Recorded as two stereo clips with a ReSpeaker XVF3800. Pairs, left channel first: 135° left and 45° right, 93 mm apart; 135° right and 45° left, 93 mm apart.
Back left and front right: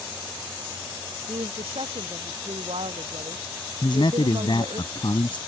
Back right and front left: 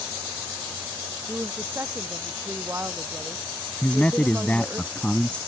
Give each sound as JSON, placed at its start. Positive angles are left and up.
{"t": 1.3, "sound": "a woman speaking", "azimuth_deg": -25}
{"t": 3.8, "sound": "a man speaking", "azimuth_deg": 150}